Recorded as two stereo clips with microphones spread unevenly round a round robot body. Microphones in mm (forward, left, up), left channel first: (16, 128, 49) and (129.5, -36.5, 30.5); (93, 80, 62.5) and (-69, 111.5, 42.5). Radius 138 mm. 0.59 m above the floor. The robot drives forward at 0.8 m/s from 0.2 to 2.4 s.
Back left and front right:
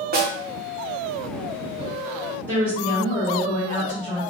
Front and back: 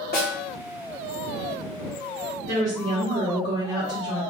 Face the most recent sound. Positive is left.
turn(degrees=-150)